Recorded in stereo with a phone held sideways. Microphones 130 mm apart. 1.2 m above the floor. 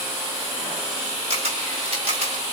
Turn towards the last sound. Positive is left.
turn(degrees=-50)  # may be behind; listen again after turning